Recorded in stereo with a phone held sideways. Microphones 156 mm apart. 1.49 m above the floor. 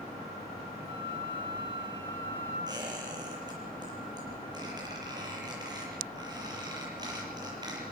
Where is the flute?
30° right (ahead or behind), 8.5 m.